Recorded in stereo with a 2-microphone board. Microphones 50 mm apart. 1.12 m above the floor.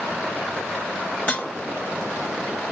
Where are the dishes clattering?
30° left (ahead or behind), 1.0 m.